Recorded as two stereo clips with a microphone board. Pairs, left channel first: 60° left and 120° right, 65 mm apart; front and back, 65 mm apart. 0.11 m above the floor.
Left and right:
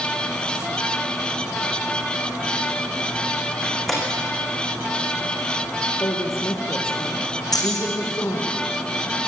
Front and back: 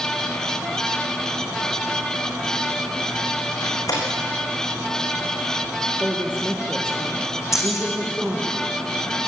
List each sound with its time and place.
3.6 s a door slam: 25° right, 6.5 m
6.0 s a woman speaking: 105° left, 3 m
7.5 s keys jangling: 40° left, 4.5 m